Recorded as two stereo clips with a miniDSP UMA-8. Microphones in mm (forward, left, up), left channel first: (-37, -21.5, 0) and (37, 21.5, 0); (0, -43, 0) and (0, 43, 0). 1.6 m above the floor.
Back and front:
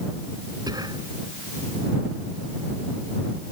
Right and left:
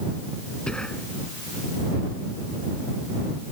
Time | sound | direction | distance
0.7 | whispering | 10° right | ?